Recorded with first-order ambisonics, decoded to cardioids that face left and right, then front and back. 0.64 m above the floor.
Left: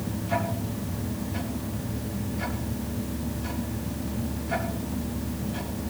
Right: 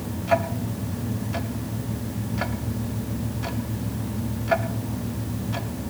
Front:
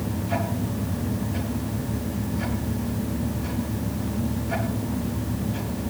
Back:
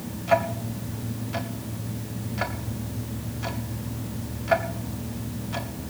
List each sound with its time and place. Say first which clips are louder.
0.3 s ticking: right 7 dB, back 7 dB; 135° right, 1.9 m